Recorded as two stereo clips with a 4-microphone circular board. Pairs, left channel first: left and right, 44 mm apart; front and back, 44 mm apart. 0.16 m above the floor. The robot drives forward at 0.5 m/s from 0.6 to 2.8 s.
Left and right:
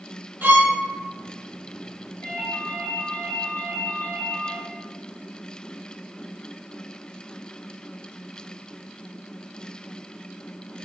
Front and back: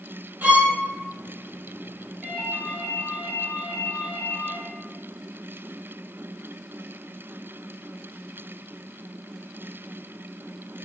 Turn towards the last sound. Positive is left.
turn(degrees=110)